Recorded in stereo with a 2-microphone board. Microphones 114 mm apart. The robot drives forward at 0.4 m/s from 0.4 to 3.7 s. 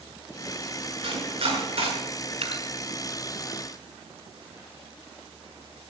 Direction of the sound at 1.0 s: 50° right (ahead or behind).